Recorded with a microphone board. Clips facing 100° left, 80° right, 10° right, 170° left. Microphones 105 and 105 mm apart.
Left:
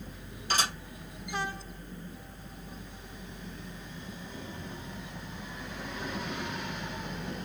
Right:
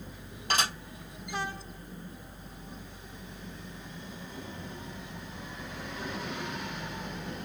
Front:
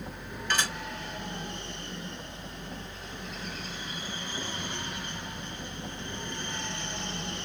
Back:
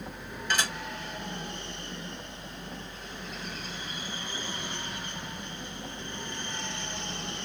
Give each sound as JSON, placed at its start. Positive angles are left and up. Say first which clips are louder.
{"t": 0.5, "sound": "dishes clattering", "louder": "right 1 dB, even", "azimuth_deg": -115, "distance_m": 3.5}